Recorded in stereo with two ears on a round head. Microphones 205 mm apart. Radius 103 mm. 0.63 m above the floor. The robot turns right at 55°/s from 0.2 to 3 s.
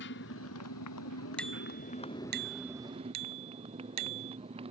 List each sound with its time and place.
0.0 s a motorcycle: 50° left; by 4.7 s 155° right
1.4 s a bicycle bell: 175° left; by 4.4 s 95° right